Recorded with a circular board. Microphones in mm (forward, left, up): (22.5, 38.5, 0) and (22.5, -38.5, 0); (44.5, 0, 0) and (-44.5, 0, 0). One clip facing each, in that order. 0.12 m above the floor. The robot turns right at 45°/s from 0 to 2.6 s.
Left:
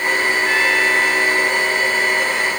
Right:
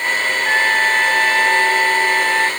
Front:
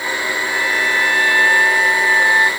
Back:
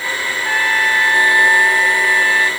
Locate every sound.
0.5 s a trumpet: 155° right; by 2.5 s 60° right